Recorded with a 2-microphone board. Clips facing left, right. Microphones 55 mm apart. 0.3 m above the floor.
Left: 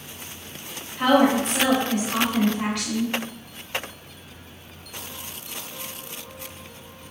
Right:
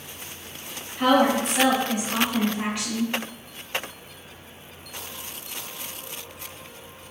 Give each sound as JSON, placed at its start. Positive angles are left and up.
{"t": 1.0, "sound": "a woman speaking", "side_deg": 0, "distance_m": 1.4}